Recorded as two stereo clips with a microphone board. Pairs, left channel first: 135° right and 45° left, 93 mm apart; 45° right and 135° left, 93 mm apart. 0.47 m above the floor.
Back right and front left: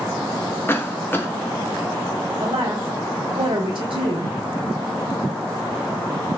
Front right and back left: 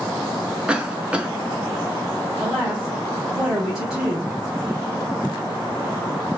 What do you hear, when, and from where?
0.7 s a cough: 160° right, 0.8 m
2.4 s a woman speaking: 50° left, 1.5 m